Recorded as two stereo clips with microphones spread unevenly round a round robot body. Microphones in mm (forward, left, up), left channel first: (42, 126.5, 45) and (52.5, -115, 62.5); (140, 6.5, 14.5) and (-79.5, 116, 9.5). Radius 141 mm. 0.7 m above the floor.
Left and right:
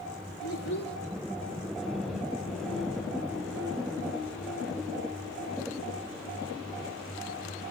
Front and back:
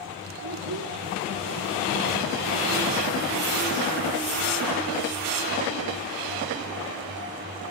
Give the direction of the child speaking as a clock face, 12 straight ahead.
7 o'clock.